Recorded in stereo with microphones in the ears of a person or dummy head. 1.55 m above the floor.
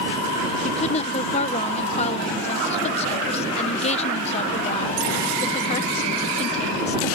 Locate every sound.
0.6 s a woman speaking: 35° left (ahead or behind)